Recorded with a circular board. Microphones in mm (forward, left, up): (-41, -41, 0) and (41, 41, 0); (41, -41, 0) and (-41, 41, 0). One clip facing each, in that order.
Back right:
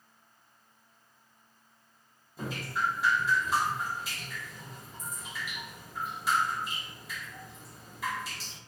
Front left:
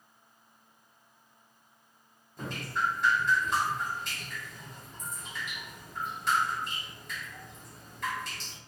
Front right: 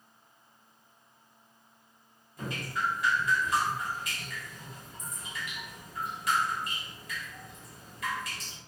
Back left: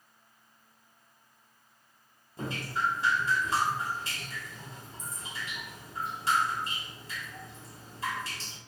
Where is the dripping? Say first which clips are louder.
Even, back left 1 dB; 145° left, 0.5 m.